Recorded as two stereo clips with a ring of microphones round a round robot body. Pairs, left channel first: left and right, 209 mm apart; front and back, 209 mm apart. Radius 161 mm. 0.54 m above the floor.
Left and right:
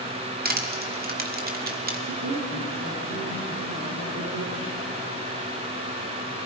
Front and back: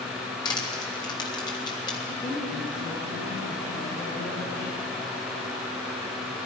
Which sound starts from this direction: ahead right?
Crushing, at 0.5 s.